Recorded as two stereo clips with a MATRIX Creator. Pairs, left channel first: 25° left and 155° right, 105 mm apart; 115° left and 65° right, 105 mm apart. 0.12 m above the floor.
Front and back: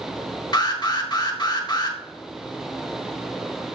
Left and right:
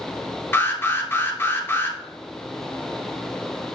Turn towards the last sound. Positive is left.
turn(degrees=50)